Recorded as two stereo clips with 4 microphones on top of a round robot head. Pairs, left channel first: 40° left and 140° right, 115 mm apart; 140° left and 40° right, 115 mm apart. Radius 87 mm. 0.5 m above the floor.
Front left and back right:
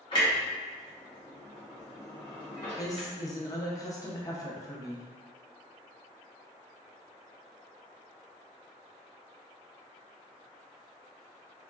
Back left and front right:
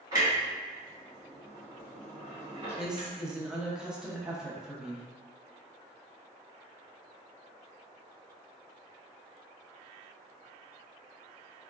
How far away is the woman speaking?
About 0.7 m.